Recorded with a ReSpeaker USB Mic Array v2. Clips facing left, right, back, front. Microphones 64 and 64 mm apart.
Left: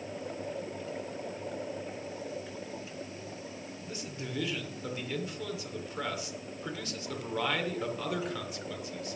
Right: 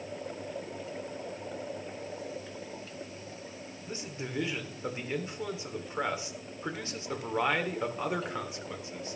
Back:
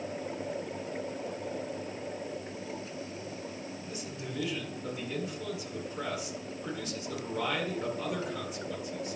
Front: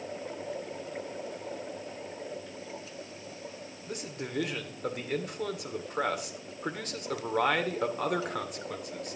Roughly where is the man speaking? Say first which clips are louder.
Right 2 dB, front 1 dB; ahead right.